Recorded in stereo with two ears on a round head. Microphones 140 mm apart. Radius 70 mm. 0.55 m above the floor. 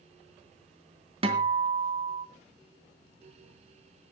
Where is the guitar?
35° right (ahead or behind), 2.5 m.